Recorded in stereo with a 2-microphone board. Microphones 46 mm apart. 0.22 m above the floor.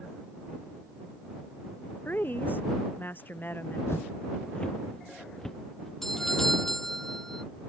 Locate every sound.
2.0 s a woman speaking: 45° left (ahead or behind)
3.9 s footsteps: 70° left (ahead or behind); by 5.9 s 5° left (ahead or behind)
6.0 s a doorbell: 5° left (ahead or behind)